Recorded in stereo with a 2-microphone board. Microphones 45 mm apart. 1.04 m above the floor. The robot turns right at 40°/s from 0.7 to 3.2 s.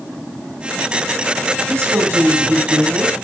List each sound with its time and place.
1.7 s a woman speaking: 90° right, 7 m; by 3.2 s 30° right, 7 m